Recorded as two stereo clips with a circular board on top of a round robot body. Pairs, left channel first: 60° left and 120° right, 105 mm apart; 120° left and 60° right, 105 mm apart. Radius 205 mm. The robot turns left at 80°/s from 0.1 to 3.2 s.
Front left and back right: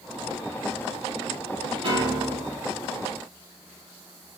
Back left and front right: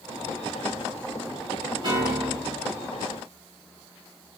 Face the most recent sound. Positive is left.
turn(degrees=155)